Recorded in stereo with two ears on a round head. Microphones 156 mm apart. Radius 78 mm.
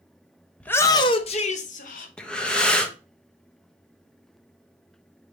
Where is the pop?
I don't hear a pop.